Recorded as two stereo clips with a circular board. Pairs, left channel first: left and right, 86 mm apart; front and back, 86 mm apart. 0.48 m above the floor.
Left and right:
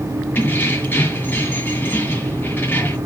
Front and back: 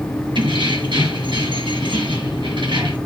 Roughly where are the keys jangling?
Behind left.